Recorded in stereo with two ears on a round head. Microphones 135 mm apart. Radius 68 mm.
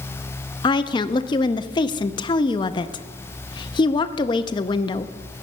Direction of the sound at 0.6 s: 30° left (ahead or behind).